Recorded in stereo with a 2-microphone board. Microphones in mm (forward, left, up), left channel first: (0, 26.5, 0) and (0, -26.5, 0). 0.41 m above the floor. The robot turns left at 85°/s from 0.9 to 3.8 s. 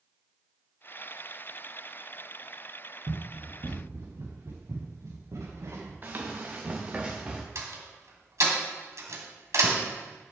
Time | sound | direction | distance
3.1 | running footsteps | 45° right (ahead or behind) | 2.0 m
6.0 | running footsteps | 35° right (ahead or behind) | 2.5 m
7.5 | a door slam | 65° right (ahead or behind) | 2 m